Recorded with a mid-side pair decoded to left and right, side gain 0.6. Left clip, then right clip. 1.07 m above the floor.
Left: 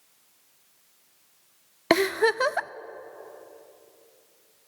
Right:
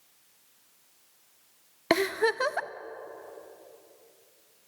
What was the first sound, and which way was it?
A giggle, 20° left.